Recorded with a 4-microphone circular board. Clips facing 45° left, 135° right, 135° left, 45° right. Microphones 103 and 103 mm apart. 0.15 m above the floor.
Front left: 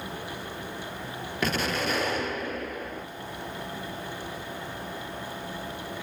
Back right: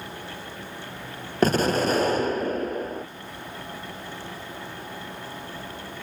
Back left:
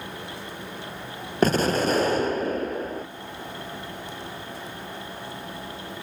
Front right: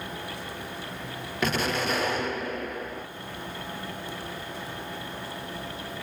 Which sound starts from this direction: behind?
An explosion, at 1.4 s.